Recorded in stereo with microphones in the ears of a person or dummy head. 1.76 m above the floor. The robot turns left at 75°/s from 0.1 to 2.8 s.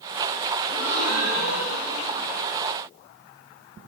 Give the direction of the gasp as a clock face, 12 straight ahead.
7 o'clock.